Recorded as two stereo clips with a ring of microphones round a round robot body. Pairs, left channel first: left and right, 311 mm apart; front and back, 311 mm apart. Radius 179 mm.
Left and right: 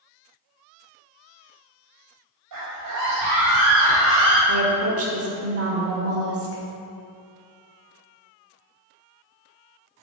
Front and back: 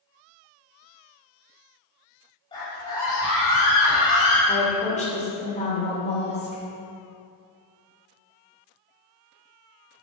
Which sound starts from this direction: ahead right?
A woman speaking, at 4.5 s.